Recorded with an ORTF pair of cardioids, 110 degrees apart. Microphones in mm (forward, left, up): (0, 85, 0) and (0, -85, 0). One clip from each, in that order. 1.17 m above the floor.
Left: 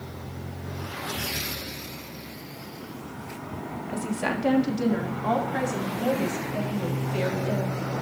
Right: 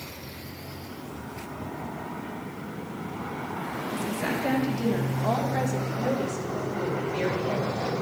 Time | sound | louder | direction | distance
3.9 | a woman speaking | left 2 dB | 15° left | 1.4 m